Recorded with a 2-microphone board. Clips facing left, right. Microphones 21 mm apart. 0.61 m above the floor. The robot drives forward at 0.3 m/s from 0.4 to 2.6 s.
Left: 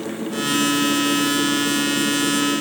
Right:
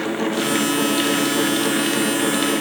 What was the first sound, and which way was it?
Only background noise.